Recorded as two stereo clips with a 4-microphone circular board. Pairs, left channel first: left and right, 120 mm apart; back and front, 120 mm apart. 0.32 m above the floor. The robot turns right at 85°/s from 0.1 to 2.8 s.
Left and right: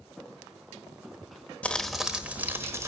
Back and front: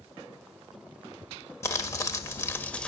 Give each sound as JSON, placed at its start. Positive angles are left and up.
{"t": 1.6, "sound": "crumpling", "azimuth_deg": 155, "distance_m": 1.3}